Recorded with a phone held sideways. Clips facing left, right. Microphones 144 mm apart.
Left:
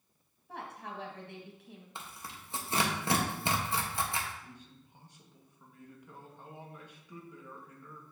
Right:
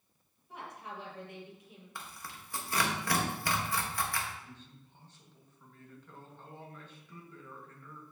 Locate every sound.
0.5 s a woman speaking: 70° left (ahead or behind), 1.9 m
1.9 s tearing paper: 25° left (ahead or behind), 1.0 m
4.4 s a man speaking: 15° left (ahead or behind), 1.5 m